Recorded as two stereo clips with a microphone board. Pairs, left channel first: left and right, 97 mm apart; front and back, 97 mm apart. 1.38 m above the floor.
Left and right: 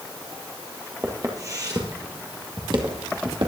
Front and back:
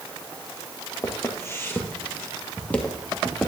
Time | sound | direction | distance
1.0 | footsteps | 45° right | 1.9 m